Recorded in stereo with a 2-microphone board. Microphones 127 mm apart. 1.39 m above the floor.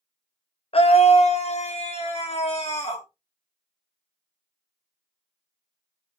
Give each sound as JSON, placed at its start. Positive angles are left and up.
{"t": 0.7, "sound": "a scream", "side_deg": 50, "distance_m": 0.6}